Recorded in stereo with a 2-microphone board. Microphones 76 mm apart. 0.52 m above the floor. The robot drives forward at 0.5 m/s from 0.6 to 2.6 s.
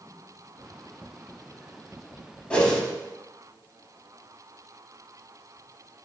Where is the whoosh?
10° left (ahead or behind), 0.6 m.